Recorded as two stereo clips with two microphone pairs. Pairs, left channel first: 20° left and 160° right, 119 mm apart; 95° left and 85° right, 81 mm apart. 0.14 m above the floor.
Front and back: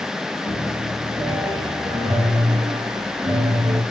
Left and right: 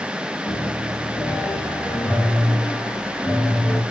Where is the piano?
150° left, 8.5 m.